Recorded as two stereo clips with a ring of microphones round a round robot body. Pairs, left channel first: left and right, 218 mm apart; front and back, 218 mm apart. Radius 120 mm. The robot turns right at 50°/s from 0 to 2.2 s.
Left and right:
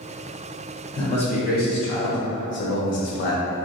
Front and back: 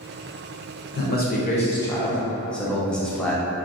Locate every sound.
0.9 s a man speaking: 25° left, 0.7 m; by 3.4 s 85° left, 0.7 m